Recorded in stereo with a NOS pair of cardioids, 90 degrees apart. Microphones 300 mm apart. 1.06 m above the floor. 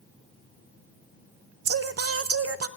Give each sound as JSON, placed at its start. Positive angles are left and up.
{"t": 1.6, "sound": "singing", "azimuth_deg": -50, "distance_m": 0.6}